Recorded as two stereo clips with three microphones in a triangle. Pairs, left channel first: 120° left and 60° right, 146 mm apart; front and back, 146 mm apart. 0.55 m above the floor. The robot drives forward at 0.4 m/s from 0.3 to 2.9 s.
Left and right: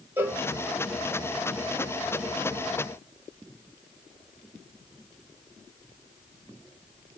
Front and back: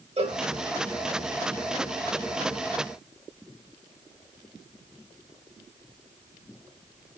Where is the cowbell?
135° right, 0.9 m; by 0.4 s 140° right, 1.0 m.